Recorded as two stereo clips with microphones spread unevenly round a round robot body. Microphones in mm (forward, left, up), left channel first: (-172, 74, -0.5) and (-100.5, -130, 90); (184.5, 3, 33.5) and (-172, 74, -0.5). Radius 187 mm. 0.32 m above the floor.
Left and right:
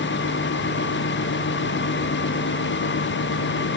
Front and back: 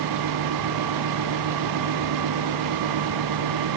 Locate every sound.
Only background noise.